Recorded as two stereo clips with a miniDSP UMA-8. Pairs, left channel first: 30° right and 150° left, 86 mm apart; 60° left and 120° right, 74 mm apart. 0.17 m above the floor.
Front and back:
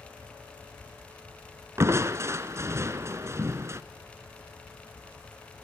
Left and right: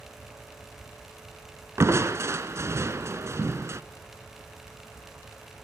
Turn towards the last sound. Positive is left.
turn(degrees=-160)